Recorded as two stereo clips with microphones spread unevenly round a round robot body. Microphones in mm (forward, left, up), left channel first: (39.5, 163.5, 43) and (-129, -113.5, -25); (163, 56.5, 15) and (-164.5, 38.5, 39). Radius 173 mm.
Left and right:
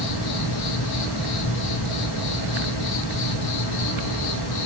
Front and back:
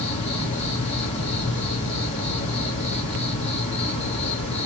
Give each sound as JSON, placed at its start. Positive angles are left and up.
{"t": 0.0, "sound": "an insect", "azimuth_deg": 75, "distance_m": 1.5}